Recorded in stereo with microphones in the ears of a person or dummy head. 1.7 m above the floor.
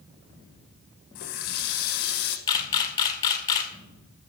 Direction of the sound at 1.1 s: 55° left (ahead or behind).